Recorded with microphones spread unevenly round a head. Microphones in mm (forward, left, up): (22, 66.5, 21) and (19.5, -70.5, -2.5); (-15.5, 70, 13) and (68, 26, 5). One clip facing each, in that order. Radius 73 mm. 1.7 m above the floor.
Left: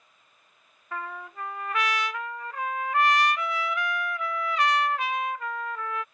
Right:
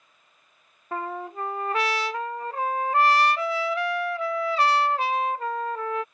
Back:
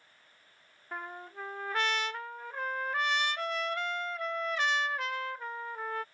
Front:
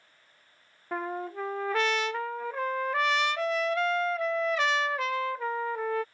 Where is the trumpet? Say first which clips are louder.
Right 5 dB, front 9 dB; 30° right.